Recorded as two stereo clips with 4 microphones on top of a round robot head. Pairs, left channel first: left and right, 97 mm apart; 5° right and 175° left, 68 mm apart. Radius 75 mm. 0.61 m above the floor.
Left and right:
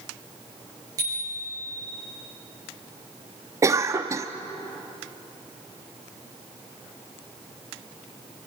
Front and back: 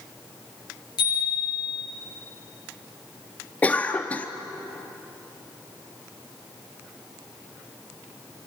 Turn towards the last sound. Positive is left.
turn(degrees=-55)